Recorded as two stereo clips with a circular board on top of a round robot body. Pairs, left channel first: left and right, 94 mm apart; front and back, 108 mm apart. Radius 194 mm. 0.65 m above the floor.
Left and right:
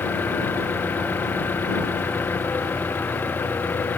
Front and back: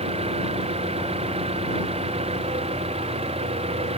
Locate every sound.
0.0 s an engine running: 160° left